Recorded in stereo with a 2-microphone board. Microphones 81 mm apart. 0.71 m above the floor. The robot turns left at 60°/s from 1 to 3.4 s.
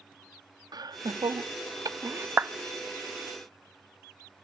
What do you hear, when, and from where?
0.7 s laughter: 55° right (ahead or behind), 0.9 m; by 2.3 s 25° right (ahead or behind), 0.9 m
2.4 s a clap: 25° right (ahead or behind), 0.5 m